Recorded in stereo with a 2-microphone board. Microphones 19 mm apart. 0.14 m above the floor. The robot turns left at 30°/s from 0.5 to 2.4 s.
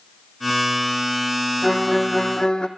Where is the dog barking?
I don't hear a dog barking.